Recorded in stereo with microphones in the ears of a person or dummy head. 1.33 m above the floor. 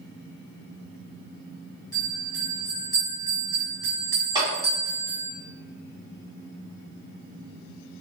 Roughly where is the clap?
Right.